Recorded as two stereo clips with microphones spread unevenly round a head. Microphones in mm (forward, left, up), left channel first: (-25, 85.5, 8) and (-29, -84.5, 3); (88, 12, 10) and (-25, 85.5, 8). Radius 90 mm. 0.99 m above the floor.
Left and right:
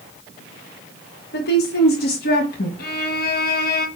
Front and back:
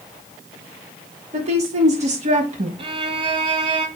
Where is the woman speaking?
110° left, 2.5 m; by 2.7 s 115° left, 1.6 m.